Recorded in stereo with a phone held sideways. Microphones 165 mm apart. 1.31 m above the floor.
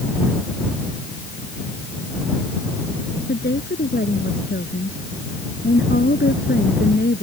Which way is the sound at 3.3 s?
85° left.